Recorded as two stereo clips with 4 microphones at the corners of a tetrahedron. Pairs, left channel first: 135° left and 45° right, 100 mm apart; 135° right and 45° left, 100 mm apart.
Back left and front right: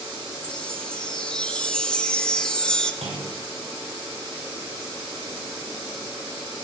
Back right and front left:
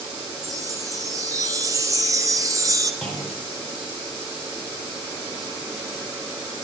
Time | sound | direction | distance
0.4 | a chime | 60° left | 0.9 m
3.0 | a clunk | 50° right | 5.5 m